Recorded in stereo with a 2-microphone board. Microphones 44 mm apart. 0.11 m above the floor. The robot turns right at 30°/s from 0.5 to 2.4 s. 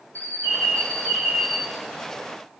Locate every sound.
0.1 s a bird: 145° left, 2 m; by 1.7 s straight behind, 2 m